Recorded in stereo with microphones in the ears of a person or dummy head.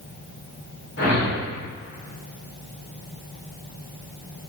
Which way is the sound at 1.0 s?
55° left (ahead or behind).